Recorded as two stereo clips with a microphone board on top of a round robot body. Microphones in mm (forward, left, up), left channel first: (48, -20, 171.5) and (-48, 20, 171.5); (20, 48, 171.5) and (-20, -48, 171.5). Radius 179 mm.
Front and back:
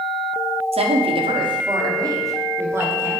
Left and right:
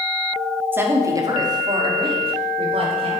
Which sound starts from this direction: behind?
A woman speaking, at 0.7 s.